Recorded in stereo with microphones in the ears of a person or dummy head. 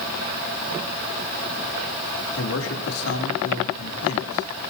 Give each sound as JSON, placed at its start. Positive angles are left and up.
{"t": 2.4, "sound": "a man speaking", "side_deg": 85, "distance_m": 3.0}